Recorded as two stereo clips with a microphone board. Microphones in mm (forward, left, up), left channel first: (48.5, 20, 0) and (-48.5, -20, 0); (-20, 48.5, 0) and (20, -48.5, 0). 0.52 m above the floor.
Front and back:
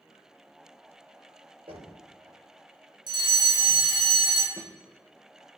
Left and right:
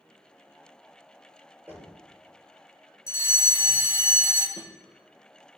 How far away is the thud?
About 3.5 m.